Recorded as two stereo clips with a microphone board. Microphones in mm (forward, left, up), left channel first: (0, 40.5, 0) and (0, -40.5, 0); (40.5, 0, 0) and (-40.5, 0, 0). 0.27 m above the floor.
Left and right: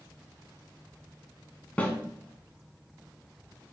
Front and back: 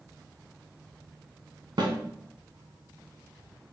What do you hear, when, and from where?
1.8 s a snare drum: 160° left, 0.9 m